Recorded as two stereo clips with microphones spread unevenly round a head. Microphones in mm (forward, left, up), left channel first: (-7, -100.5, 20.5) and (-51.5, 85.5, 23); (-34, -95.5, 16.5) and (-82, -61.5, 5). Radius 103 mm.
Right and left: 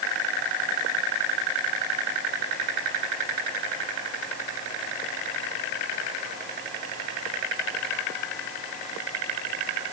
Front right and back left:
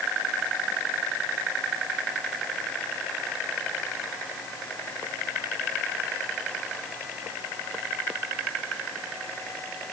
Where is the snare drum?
No snare drum in this recording.